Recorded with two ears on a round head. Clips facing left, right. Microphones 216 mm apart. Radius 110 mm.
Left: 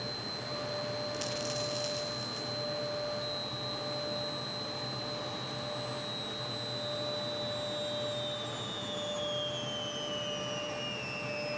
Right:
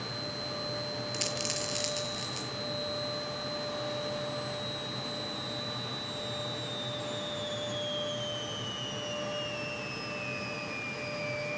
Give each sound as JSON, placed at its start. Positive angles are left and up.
{"t": 1.1, "sound": "a dropped coin", "side_deg": -35, "distance_m": 5.5}